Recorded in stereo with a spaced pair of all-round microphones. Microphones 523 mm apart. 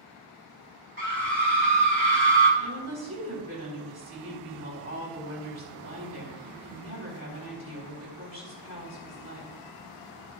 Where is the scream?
20° right (ahead or behind), 2.5 m.